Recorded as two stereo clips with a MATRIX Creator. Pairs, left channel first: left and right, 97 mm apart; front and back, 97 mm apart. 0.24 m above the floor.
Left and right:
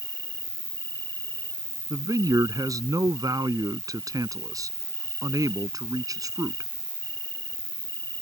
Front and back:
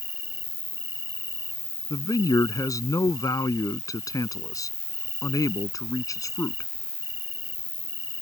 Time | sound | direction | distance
0.0 | an insect | 30° left | ?
1.9 | a man speaking | 45° right | ?